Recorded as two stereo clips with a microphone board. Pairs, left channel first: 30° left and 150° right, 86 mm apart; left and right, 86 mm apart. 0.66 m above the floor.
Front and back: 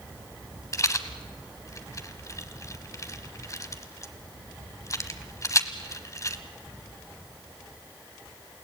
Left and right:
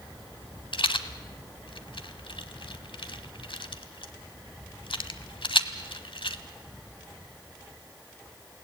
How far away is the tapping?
No tapping in this recording.